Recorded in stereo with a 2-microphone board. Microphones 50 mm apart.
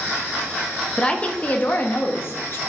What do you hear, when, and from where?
1.0 s a woman speaking: 15° left (ahead or behind), 1.0 m; by 2.6 s 55° left (ahead or behind), 1.4 m